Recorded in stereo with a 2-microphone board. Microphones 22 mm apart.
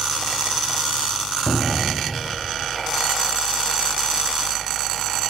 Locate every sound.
1.5 s a cupboard door: 35° left (ahead or behind), 0.8 m